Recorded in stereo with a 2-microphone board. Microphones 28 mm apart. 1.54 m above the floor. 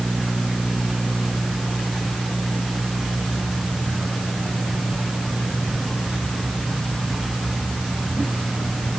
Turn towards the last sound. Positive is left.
No sound to turn to.